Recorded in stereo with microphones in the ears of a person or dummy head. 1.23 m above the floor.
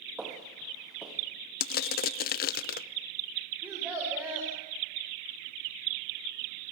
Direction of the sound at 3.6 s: 5° right (ahead or behind).